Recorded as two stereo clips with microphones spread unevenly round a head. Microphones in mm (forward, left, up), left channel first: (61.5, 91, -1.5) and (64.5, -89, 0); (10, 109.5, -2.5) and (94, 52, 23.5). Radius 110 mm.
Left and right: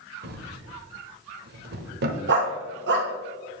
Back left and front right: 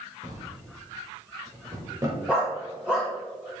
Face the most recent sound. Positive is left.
turn(degrees=-110)